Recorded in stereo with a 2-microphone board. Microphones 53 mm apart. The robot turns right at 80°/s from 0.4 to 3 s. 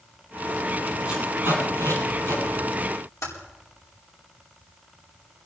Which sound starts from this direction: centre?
Tape being pulled, at 1.1 s.